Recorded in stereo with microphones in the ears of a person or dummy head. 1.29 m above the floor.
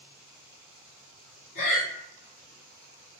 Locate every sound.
1.6 s breathing: 40° left (ahead or behind), 1.4 m